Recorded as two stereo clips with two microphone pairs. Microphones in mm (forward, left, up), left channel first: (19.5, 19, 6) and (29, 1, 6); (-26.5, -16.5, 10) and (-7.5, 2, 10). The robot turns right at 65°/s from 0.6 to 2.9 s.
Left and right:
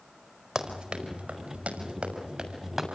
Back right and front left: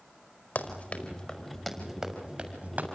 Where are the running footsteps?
120° right, 4.5 m; by 2.9 s 20° left, 7.5 m.